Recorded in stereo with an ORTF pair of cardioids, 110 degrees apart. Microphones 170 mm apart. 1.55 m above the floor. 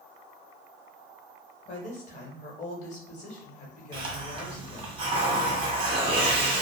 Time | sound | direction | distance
1.6 | a woman speaking | 45° left | 1.3 m
3.9 | a hiss | 30° right | 0.9 m